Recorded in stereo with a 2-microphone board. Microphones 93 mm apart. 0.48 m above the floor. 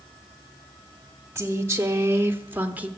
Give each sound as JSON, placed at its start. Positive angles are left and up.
{"t": 1.4, "sound": "a woman speaking", "side_deg": -25, "distance_m": 1.1}